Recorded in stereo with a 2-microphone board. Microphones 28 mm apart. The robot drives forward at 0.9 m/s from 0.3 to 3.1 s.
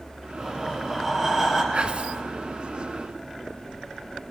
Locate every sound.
0.4 s breathing: 15° right (ahead or behind), 4.5 m
1.7 s whispering: 40° right (ahead or behind), 1.6 m; by 2.2 s 45° right (ahead or behind), 1.5 m